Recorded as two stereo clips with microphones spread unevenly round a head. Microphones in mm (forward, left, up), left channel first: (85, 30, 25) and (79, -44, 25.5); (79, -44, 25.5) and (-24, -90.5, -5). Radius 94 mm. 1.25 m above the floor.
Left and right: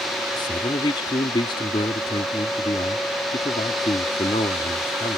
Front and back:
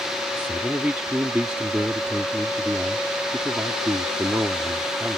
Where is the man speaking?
120° left.